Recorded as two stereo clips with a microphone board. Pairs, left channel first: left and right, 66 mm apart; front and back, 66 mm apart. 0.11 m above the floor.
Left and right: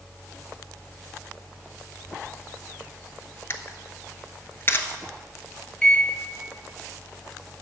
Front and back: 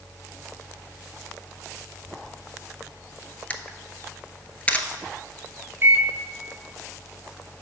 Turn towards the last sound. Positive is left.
turn(degrees=165)